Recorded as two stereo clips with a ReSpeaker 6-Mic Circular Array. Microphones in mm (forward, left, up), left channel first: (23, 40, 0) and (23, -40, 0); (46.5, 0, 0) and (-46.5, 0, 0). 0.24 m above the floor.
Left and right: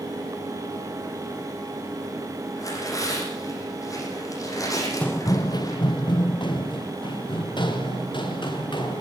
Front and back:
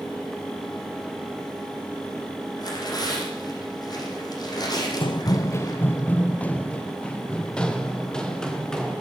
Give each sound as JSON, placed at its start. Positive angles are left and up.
{"t": 2.6, "sound": "tearing paper", "azimuth_deg": 45, "distance_m": 9.0}
{"t": 5.0, "sound": "running footsteps", "azimuth_deg": 20, "distance_m": 0.5}